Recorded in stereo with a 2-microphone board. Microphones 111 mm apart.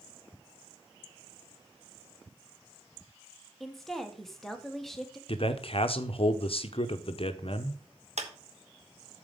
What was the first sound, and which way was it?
A woman speaking, 5° left (ahead or behind).